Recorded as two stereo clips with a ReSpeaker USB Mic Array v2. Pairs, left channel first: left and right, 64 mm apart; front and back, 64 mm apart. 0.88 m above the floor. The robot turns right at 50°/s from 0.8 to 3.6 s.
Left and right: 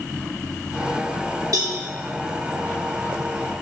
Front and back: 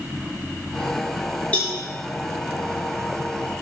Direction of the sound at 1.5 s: 70° right.